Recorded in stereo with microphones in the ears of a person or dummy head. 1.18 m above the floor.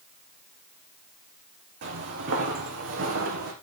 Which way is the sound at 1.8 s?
55° right (ahead or behind).